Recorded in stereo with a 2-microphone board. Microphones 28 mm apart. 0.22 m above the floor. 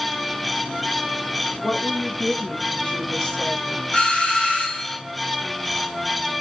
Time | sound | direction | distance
1.6 | a woman speaking | 30° left (ahead or behind) | 2.5 m
3.9 | a doorbell | 50° left (ahead or behind) | 2.5 m